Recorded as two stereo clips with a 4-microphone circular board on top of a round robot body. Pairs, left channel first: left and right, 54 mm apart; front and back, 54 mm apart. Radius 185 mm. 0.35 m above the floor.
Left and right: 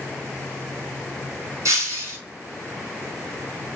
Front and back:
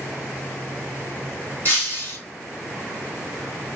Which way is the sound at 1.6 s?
60° right.